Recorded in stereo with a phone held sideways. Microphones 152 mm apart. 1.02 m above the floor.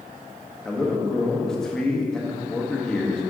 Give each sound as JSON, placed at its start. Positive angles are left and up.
{"t": 0.7, "sound": "a man speaking", "side_deg": 5, "distance_m": 1.3}